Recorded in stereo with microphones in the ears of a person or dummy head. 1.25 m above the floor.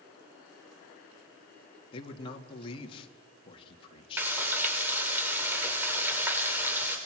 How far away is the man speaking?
About 2.5 m.